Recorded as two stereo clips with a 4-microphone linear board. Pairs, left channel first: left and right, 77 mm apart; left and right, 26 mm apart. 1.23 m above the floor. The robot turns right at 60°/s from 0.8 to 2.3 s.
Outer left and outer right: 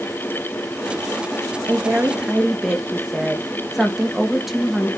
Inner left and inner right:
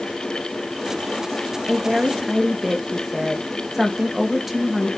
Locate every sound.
1.7 s a woman speaking: 40° right, 1.8 m; by 4.9 s 5° right, 1.8 m